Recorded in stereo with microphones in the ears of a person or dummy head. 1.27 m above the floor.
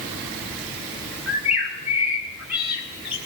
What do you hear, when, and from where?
1.3 s a bird: centre (ahead or behind), 0.9 m